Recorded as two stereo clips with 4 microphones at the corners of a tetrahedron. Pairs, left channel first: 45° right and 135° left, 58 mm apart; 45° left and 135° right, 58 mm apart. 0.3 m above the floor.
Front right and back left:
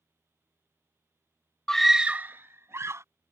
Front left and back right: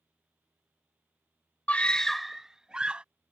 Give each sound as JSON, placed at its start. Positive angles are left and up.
{"t": 1.7, "sound": "a scream", "azimuth_deg": 15}